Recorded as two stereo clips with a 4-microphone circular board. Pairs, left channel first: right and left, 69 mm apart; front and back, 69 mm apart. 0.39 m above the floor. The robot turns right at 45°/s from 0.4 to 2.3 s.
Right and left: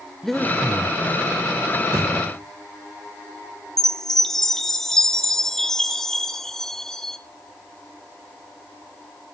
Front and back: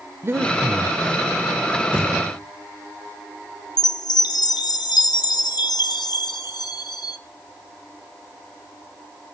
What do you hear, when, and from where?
0.2 s breathing: 170° right, 0.7 m; by 0.9 s 145° right, 0.7 m
1.9 s a thud: 70° left, 7.5 m; by 2.4 s 85° left, 7.5 m
3.8 s a chime: 5° right, 1.3 m